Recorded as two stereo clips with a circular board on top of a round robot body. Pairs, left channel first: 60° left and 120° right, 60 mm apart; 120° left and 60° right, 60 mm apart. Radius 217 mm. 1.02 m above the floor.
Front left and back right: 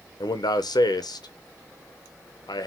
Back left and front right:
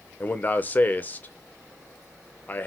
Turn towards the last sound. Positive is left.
turn(degrees=60)